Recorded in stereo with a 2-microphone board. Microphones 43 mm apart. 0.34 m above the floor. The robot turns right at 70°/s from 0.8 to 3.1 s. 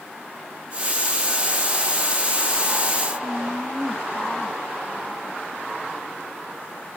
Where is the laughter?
10° left (ahead or behind).